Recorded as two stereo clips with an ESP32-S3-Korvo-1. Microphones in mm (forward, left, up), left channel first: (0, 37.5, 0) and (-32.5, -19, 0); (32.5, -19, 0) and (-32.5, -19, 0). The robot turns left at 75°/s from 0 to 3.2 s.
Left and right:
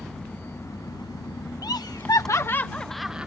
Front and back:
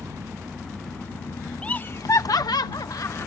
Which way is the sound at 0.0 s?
145° left.